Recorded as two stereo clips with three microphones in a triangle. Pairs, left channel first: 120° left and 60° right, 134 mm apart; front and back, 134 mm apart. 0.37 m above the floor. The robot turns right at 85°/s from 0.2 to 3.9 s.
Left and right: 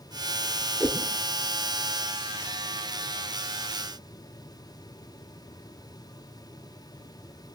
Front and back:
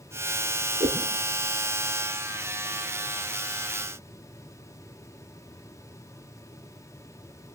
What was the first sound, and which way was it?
A whoosh, 145° right.